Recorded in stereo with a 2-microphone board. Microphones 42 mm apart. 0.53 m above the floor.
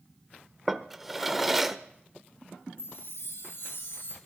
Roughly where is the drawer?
Centre.